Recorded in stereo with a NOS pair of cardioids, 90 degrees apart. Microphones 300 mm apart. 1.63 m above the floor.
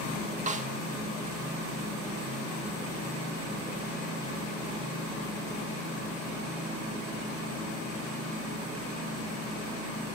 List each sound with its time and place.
0.5 s a snare drum: 25° right, 2.5 m